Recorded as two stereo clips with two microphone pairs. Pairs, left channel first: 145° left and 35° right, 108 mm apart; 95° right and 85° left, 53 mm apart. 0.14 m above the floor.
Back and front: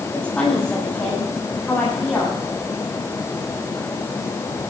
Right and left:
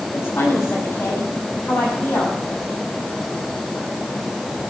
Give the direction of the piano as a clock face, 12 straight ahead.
No piano in this recording.